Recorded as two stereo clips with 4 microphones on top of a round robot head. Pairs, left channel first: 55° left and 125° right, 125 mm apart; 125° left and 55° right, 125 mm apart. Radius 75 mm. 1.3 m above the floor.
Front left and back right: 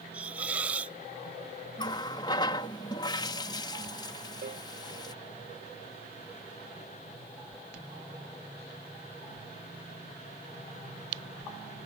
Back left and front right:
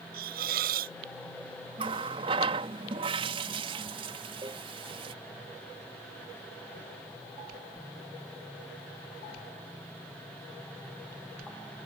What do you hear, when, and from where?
0.1 s a hiss: 45° right
1.8 s a running tap: 5° right
4.4 s a cowbell: 115° right